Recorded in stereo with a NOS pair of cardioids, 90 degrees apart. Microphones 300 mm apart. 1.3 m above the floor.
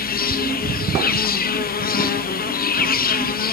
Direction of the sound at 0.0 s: 30° left.